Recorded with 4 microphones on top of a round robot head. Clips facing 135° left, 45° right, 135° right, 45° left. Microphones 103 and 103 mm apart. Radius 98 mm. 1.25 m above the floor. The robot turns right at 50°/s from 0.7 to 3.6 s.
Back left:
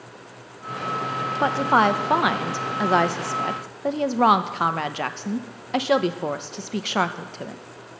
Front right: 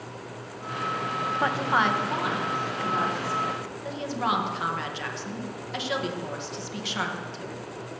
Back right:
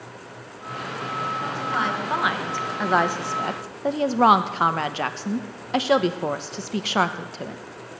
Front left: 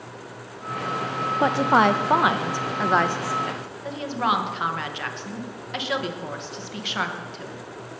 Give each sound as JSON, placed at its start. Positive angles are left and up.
{"t": 1.4, "sound": "a woman speaking", "azimuth_deg": 65, "distance_m": 0.9}